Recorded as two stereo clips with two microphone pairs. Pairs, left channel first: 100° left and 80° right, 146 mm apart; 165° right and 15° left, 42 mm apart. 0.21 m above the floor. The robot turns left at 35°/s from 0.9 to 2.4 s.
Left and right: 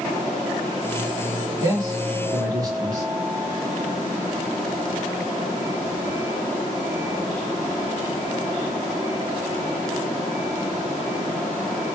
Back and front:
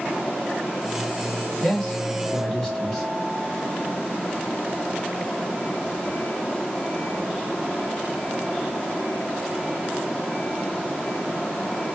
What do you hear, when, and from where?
1.6 s a man speaking: 60° right, 1.2 m; by 3.1 s 90° right, 1.2 m